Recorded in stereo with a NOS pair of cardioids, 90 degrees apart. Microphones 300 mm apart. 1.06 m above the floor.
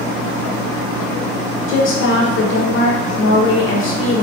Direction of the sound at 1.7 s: 40° left.